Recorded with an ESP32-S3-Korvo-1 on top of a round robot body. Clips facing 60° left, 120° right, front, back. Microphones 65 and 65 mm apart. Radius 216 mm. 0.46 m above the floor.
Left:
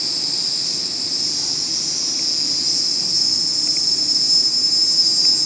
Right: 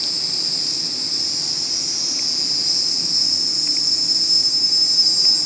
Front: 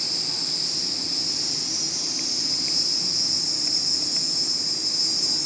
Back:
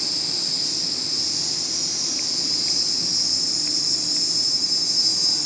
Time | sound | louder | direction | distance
0.0 | an insect | left 1 dB, back 2 dB | 175° right | 1.0 m